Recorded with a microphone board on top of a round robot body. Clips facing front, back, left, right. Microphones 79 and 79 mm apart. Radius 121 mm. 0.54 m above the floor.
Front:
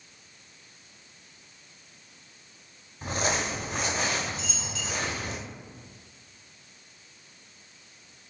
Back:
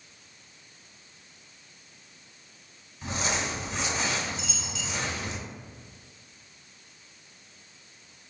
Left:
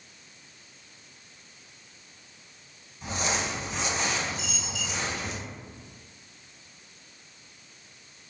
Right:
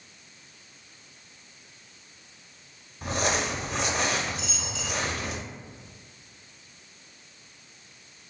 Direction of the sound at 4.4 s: 45° left.